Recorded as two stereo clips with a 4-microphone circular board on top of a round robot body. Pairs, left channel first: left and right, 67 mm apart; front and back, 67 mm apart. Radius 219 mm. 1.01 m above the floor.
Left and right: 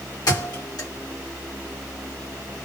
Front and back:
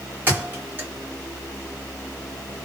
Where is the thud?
120° left, 1.7 m.